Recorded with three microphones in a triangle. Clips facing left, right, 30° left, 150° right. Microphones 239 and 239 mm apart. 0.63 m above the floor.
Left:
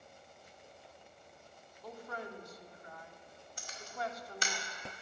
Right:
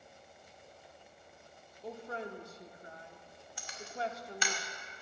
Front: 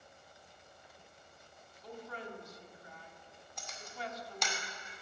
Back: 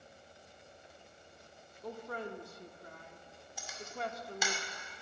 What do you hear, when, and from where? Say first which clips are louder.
1.8 s a woman speaking: right 3 dB, back 4 dB; 145° right, 1.6 m
3.6 s a camera shutter: right 2 dB, back 4 dB; 125° left, 2 m